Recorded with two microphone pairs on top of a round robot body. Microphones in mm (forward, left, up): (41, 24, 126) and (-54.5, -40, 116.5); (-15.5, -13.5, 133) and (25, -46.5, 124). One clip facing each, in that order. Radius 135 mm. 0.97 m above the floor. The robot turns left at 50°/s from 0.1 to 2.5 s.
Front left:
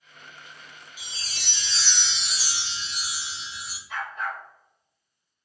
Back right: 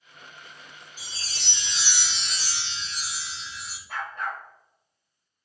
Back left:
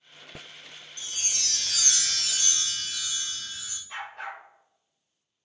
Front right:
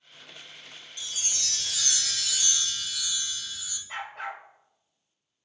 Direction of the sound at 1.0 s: 170° right.